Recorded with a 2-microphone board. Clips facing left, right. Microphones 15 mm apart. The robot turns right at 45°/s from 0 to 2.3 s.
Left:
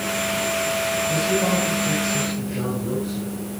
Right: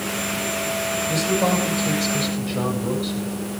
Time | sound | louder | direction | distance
1.1 | a man speaking | right 2 dB | 140° right | 7 m